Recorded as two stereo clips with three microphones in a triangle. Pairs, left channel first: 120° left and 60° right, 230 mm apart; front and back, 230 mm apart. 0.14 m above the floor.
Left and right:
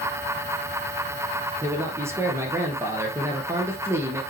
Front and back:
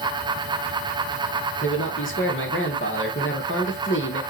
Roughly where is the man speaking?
Ahead.